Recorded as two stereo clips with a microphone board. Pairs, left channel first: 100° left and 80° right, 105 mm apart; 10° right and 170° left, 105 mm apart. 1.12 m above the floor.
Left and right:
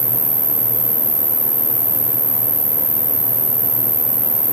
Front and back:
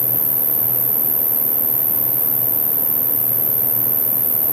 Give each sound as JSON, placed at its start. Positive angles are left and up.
{"t": 0.0, "sound": "an insect", "azimuth_deg": -115, "distance_m": 1.0}